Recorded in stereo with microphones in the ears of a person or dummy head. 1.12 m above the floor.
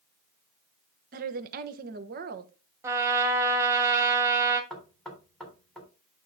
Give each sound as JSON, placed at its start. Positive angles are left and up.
{"t": 1.1, "sound": "a woman speaking", "side_deg": -50, "distance_m": 0.9}
{"t": 2.8, "sound": "a trumpet", "side_deg": -15, "distance_m": 1.8}
{"t": 4.7, "sound": "knocking", "side_deg": 0, "distance_m": 3.5}